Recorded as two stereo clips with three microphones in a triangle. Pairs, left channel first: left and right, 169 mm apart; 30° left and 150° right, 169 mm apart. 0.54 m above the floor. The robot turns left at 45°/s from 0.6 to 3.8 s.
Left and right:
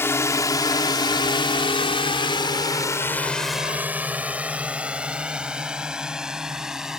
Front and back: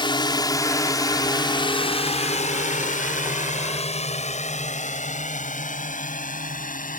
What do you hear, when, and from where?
0.0 s a drone: 30° left; by 7.0 s 5° right